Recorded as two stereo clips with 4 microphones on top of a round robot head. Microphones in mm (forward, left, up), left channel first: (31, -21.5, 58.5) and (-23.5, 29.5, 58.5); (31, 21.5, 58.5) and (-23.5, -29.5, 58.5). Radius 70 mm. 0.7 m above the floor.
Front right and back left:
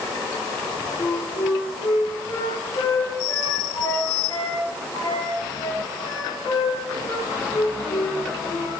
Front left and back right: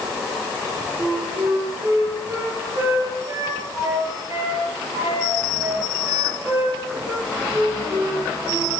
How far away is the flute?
About 9 m.